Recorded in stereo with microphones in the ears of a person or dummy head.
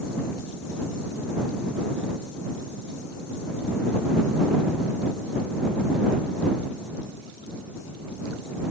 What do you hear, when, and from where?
Only background noise.